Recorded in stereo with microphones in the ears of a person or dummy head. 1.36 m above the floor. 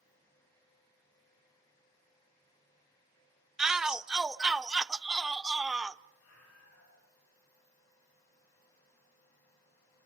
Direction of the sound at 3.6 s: 5° right (ahead or behind).